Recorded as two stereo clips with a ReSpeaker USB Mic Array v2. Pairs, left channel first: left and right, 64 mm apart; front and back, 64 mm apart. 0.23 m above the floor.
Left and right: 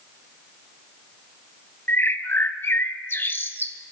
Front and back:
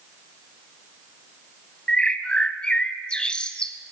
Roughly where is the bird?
Ahead left.